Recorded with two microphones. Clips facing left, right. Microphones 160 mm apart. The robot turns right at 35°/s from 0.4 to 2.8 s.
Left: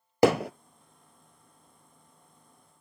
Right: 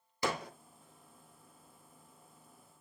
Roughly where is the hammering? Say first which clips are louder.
Left 14 dB; left.